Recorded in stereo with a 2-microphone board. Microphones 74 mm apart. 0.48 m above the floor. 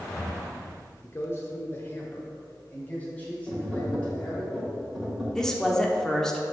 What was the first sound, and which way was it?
A man speaking, 35° left (ahead or behind).